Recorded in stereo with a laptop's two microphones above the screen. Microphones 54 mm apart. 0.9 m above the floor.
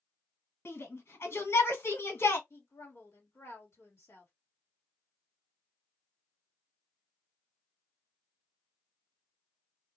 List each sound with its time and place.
0.7 s a shout: 55° left (ahead or behind), 1.6 m
2.5 s a woman speaking: 55° left (ahead or behind), 1.5 m